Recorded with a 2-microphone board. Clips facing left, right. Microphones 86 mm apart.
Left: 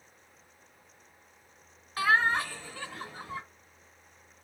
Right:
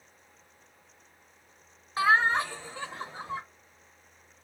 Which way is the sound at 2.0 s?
25° right (ahead or behind).